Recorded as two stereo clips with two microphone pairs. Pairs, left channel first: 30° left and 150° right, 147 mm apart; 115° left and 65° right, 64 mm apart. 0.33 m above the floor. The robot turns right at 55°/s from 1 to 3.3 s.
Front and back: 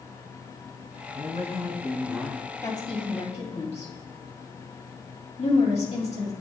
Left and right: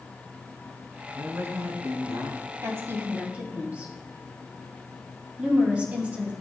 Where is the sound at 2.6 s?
35° right, 2.5 m; by 6.3 s straight ahead, 2.5 m.